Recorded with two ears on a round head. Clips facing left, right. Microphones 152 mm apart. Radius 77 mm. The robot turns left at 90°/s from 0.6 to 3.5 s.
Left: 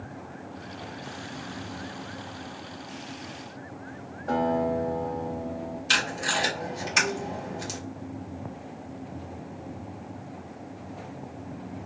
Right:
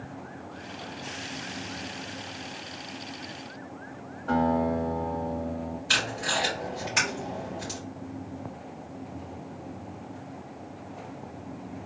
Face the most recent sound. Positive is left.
turn(degrees=25)  # may be behind; listen again after turning